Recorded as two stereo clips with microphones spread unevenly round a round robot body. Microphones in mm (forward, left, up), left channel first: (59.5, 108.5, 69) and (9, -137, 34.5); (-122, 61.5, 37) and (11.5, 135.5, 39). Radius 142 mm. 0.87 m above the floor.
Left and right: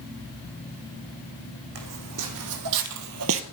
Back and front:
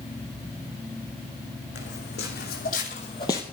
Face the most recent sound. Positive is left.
turn(degrees=-75)